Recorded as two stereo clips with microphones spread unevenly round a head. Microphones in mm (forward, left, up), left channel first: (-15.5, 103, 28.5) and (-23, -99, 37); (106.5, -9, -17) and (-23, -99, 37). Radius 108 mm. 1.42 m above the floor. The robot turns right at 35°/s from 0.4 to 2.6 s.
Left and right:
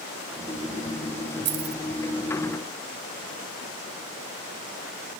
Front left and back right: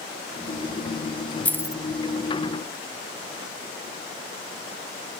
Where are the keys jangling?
55° right, 1.2 m; by 1.8 s 40° right, 1.2 m.